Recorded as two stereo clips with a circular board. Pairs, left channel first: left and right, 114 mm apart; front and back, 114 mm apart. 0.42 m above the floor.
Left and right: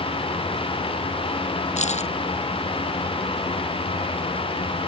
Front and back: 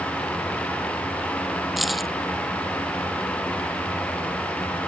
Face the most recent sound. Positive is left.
turn(degrees=90)